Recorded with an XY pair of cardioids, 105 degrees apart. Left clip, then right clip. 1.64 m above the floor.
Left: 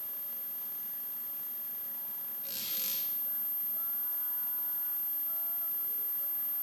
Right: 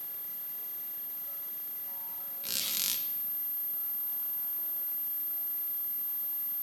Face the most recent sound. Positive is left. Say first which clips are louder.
# right 7 dB
turn(degrees=-65)